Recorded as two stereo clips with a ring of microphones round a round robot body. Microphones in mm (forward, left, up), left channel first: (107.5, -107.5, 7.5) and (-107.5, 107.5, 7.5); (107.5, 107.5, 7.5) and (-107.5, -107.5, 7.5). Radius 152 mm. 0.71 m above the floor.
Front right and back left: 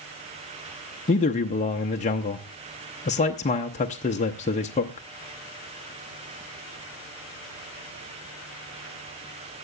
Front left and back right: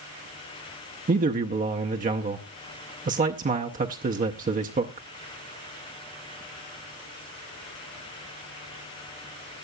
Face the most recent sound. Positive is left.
turn(degrees=-95)